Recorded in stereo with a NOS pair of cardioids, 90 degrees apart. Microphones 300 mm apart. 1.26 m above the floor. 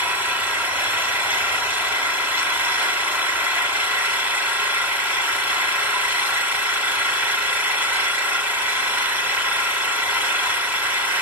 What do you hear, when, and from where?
0.0 s an engine running: 5° right, 2.5 m